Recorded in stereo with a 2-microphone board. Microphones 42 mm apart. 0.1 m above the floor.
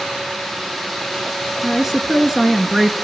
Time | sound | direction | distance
1.6 | a woman speaking | 10° right (ahead or behind) | 1.1 m